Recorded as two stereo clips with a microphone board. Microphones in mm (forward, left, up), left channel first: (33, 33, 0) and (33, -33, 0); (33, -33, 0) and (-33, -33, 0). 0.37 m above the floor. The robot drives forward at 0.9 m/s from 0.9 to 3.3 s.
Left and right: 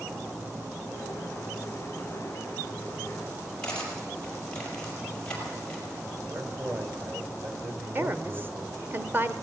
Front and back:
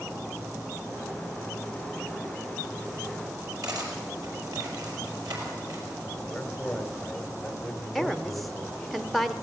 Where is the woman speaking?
85° right, 0.9 m.